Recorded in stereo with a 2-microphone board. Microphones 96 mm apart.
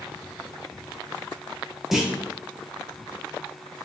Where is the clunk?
5° right (ahead or behind), 0.8 m.